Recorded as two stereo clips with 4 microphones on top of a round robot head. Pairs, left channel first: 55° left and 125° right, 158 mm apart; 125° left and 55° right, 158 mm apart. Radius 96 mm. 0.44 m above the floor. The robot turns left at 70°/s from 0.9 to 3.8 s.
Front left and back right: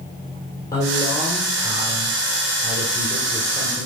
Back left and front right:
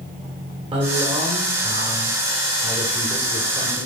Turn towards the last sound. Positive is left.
turn(degrees=145)